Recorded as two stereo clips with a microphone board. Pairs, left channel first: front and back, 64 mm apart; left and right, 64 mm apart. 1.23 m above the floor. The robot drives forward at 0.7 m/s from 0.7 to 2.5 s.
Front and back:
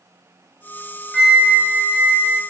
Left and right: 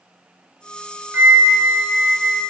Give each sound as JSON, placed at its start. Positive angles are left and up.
{"t": 1.1, "sound": "a flute", "azimuth_deg": -85, "distance_m": 0.5}